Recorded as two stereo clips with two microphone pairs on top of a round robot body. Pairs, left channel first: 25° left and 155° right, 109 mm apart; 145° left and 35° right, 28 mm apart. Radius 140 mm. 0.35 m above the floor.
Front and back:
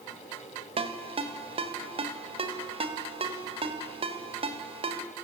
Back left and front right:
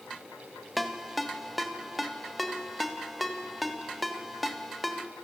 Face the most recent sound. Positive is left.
turn(degrees=-120)